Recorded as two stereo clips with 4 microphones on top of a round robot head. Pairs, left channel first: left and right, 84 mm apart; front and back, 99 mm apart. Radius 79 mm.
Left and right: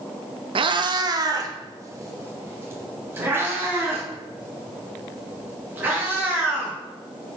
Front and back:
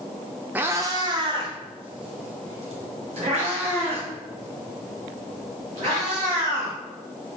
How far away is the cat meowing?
About 0.5 m.